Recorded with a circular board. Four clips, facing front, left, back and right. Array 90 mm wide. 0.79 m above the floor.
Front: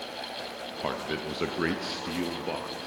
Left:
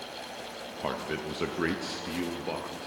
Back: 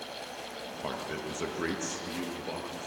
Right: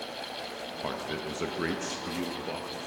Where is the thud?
No thud in this recording.